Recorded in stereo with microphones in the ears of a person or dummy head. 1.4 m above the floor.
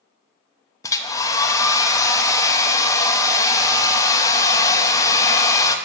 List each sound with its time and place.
0.8 s a hair dryer: 20° left (ahead or behind), 0.6 m